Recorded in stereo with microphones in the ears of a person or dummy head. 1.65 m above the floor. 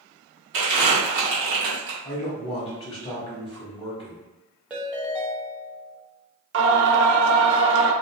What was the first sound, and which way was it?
Crumpling, 40° right (ahead or behind).